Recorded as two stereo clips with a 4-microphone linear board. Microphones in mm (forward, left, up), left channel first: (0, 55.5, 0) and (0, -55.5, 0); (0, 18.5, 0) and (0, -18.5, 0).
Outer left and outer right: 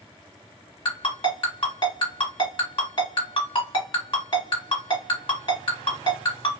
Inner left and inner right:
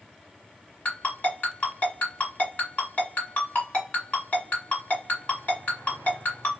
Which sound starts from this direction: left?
A ringtone, at 0.8 s.